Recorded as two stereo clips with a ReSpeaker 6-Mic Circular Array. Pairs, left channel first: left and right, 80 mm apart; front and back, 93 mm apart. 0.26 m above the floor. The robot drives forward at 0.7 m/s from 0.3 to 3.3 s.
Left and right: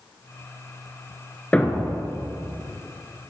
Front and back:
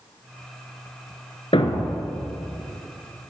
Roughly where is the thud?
Ahead.